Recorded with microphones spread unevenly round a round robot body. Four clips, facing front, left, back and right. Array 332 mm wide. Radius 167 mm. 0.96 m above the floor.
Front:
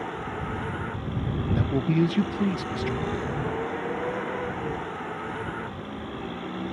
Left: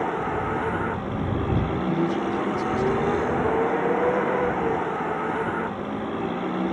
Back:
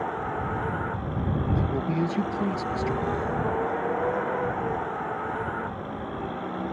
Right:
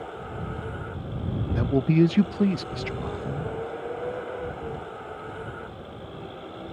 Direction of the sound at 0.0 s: 85° left.